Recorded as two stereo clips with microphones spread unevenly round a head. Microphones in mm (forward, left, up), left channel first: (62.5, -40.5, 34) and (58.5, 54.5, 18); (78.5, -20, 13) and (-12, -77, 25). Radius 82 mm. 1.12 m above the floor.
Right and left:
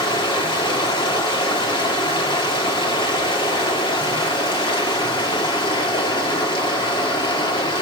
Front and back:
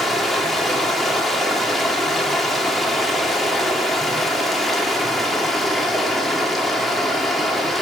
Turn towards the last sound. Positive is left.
turn(degrees=-55)